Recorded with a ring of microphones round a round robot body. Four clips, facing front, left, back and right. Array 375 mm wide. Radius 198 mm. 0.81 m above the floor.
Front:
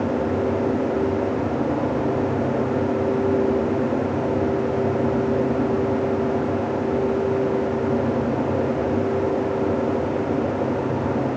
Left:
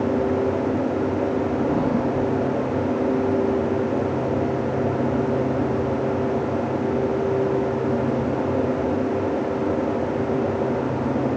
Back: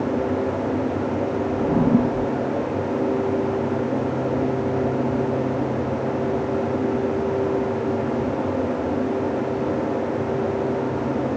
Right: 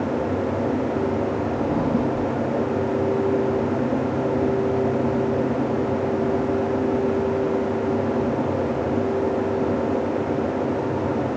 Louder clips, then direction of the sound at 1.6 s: Left 1 dB, back 3 dB; 170° right.